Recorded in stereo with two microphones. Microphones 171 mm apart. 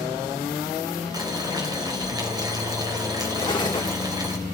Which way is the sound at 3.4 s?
25° left (ahead or behind).